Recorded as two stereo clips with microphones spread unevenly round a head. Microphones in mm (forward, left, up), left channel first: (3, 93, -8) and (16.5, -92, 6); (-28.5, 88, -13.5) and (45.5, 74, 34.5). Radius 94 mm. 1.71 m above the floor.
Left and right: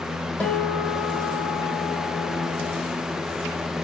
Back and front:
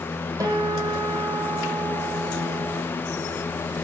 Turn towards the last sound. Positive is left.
turn(degrees=10)